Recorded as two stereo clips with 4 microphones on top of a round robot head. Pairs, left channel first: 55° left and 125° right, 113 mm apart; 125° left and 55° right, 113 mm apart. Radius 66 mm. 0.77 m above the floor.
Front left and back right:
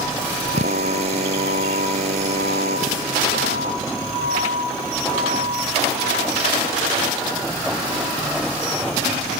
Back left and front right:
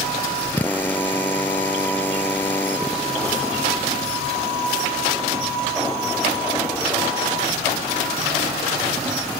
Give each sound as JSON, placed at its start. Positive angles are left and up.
{"t": 0.5, "sound": "a drill", "azimuth_deg": -160}